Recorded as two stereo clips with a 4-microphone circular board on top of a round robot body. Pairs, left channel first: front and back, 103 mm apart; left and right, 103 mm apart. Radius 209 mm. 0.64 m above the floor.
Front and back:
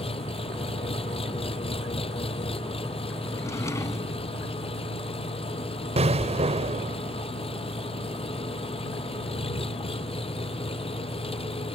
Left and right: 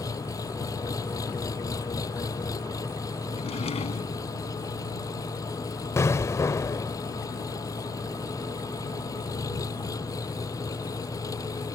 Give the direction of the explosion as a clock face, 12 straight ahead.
7 o'clock.